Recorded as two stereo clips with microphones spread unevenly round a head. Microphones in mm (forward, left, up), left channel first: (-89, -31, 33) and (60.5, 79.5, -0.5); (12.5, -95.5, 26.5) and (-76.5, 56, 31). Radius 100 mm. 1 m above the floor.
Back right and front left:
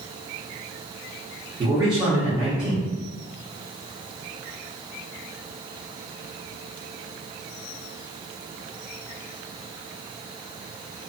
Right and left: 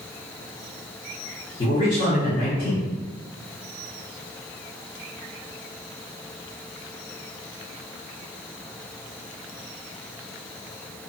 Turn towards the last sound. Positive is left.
turn(degrees=-5)